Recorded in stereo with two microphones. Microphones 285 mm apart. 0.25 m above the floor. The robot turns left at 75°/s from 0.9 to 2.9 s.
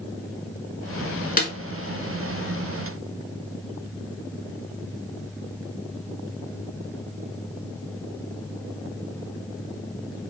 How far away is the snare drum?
About 0.8 m.